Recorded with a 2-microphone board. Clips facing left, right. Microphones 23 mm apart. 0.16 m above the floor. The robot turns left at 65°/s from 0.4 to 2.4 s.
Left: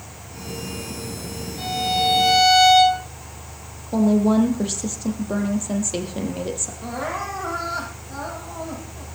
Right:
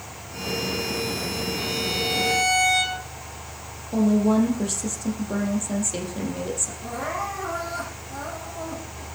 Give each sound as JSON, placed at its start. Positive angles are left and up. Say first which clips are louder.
{"t": 1.6, "sound": "a violin", "louder": "left 8 dB", "azimuth_deg": 175, "distance_m": 7.5}
{"t": 3.9, "sound": "a woman speaking", "louder": "left 2 dB", "side_deg": 25, "distance_m": 4.5}
{"t": 6.8, "sound": "crying", "louder": "left 3 dB", "side_deg": 35, "distance_m": 7.5}